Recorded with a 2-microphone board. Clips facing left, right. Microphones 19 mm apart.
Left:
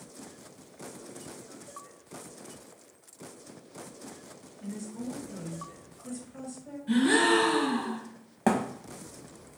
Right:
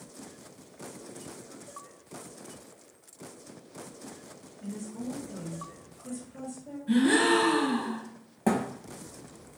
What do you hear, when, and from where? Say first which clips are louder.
4.6 s a woman speaking: even; 30° left (ahead or behind), 1.8 m
6.9 s a gasp: even; 25° left (ahead or behind), 1.4 m
8.5 s a thud: left 1 dB; 40° left (ahead or behind), 0.7 m